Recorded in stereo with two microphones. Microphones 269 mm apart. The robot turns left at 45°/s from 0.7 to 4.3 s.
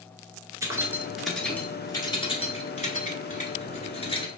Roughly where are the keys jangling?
Centre.